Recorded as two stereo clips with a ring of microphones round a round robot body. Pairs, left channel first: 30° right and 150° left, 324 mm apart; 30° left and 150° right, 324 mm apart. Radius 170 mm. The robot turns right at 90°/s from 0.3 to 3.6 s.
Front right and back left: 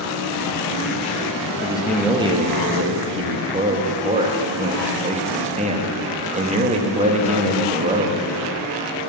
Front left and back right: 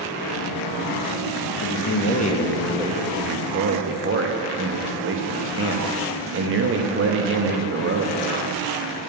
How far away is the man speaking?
About 1.0 m.